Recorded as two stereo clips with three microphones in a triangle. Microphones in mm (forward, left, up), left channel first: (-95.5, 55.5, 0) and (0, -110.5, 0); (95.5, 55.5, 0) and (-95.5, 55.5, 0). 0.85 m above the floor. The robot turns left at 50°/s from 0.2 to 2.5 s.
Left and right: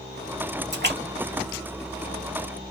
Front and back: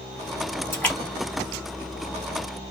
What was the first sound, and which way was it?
A splash, 75° right.